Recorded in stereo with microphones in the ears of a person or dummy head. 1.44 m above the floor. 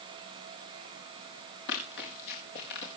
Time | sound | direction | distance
1.7 | running footsteps | 65° left (ahead or behind) | 5.5 m